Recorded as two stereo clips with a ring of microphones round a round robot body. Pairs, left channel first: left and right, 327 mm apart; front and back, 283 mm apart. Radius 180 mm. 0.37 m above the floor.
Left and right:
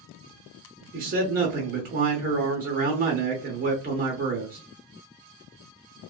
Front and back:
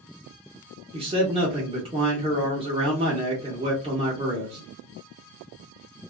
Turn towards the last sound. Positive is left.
turn(degrees=-125)